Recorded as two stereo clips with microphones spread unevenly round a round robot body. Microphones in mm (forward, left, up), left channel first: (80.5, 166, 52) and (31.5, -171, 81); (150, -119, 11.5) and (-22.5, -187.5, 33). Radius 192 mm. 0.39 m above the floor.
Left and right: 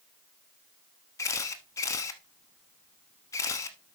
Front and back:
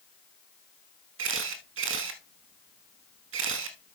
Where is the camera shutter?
165° left, 0.7 m.